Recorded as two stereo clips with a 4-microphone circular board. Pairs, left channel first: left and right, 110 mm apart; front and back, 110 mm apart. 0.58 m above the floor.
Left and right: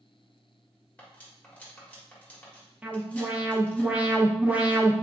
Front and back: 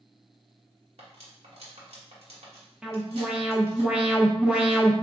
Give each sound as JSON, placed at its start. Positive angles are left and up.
{"t": 1.0, "sound": "cutlery clinking", "azimuth_deg": 165, "distance_m": 1.3}
{"t": 2.8, "sound": "an alarm", "azimuth_deg": -120, "distance_m": 0.7}